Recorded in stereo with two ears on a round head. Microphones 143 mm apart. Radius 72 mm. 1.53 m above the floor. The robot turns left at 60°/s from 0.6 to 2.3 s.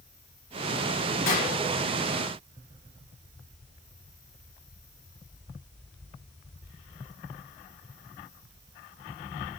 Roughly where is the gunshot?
Left.